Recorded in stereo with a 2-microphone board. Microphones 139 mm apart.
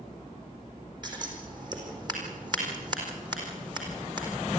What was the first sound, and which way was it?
Scissors, 30° right (ahead or behind).